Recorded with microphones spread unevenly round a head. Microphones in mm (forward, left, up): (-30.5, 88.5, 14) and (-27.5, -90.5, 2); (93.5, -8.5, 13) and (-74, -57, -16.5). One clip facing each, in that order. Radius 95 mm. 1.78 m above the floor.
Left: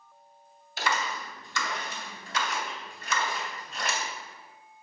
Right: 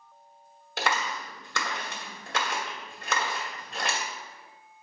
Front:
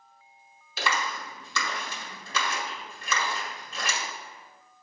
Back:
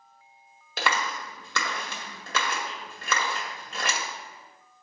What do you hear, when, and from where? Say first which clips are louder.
0.8 s a clap: right 1 dB, back 2 dB; 125° right, 1.9 m